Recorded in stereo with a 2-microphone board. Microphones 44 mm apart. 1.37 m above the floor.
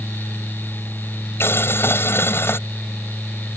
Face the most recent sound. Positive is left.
turn(degrees=65)  # may be behind; listen again after turning